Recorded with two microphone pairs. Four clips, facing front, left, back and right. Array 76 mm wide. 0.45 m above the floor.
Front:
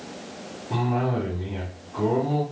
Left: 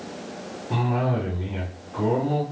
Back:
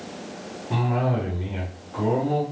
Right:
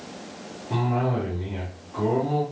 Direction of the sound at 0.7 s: 145° left.